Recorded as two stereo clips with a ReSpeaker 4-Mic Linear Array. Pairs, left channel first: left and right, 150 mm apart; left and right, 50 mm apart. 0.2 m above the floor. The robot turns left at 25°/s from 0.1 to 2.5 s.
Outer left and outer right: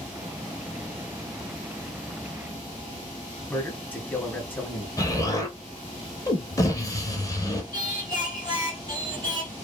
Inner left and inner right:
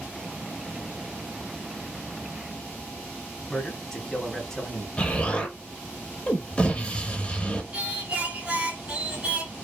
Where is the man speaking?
15° left (ahead or behind), 1.0 m.